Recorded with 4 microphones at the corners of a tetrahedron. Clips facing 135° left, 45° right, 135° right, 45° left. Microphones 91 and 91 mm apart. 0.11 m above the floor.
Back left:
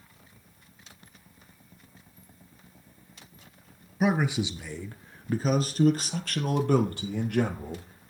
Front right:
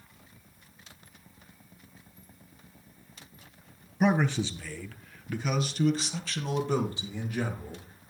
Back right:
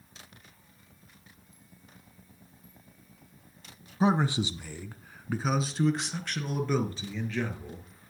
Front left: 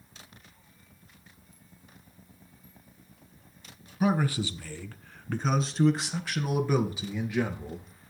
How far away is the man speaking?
About 1.1 m.